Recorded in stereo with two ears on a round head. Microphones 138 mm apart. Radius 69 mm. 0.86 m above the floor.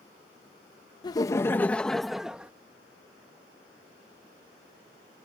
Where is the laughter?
25° left (ahead or behind); by 2.5 s 10° right (ahead or behind).